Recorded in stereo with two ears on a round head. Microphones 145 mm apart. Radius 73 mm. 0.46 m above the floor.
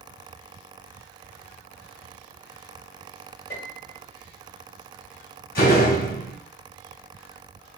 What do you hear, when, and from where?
3.5 s a piano: 55° left (ahead or behind), 2.5 m
5.5 s a door slam: 65° left (ahead or behind), 2 m